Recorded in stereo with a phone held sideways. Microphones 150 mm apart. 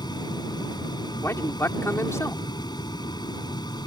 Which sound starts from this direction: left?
A fan, at 0.0 s.